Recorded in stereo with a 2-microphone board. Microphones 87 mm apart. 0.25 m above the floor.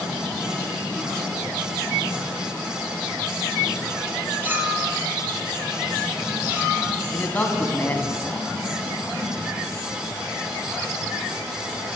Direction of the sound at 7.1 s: 20° left (ahead or behind).